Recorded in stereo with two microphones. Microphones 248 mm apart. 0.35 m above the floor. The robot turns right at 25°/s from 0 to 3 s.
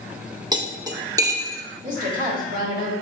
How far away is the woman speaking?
About 1.1 m.